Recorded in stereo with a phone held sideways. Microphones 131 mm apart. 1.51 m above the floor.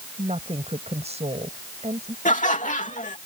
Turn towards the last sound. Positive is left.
turn(degrees=70)  # may be behind; listen again after turning